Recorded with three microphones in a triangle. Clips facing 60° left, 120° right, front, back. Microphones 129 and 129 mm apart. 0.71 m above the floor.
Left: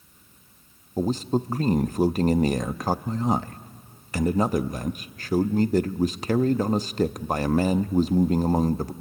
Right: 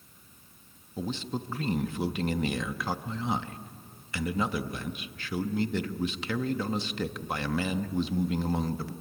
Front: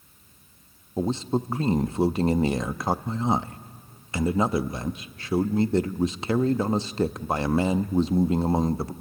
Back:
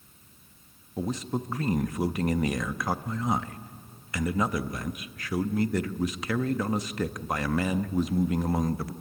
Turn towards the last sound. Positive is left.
turn(degrees=45)